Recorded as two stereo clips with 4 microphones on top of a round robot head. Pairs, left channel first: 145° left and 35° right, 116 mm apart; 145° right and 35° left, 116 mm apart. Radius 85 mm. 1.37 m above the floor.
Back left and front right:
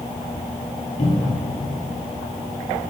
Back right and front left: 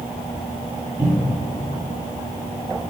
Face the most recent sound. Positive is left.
turn(degrees=110)